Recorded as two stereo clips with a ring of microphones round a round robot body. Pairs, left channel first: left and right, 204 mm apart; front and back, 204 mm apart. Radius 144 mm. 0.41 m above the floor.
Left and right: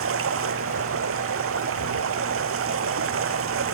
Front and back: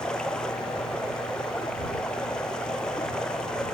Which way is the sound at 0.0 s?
85° right.